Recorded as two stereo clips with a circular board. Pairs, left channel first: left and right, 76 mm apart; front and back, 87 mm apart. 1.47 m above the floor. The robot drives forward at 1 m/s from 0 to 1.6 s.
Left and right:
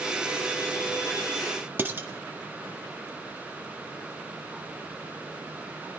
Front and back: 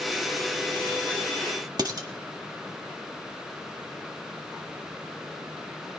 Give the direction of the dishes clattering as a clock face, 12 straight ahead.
5 o'clock.